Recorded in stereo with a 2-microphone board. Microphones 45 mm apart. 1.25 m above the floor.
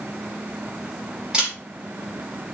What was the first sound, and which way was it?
A camera shutter, 20° right (ahead or behind).